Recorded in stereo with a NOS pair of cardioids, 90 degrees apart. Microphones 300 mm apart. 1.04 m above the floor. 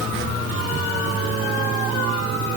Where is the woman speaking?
I don't hear a woman speaking.